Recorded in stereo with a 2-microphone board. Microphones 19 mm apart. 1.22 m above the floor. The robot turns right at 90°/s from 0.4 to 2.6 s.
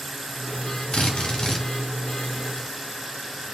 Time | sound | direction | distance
0.9 | a drill | 85° left | 2.5 m